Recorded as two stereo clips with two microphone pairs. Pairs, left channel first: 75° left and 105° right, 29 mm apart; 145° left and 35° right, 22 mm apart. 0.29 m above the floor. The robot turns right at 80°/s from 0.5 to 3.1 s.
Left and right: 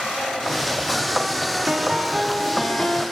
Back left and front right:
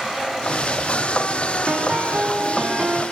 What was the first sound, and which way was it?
A piano, 70° right.